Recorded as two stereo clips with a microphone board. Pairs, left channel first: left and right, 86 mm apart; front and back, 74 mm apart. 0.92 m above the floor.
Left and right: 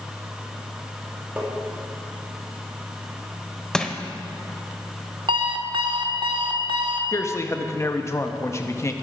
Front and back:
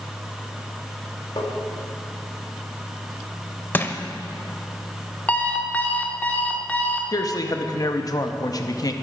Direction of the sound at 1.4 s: 15° right.